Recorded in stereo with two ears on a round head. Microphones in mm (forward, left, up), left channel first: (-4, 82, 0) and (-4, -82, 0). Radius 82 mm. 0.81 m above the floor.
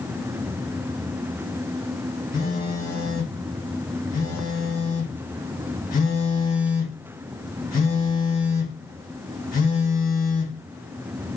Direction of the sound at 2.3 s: 45° left (ahead or behind).